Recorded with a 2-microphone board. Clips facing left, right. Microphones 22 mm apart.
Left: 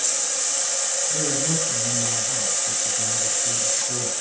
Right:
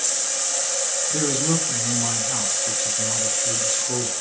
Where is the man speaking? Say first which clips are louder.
Right 3 dB; 75° right (ahead or behind), 5 m.